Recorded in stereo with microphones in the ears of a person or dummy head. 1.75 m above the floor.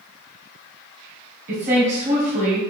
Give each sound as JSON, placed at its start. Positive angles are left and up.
{"t": 1.5, "sound": "a woman speaking", "side_deg": -45, "distance_m": 1.6}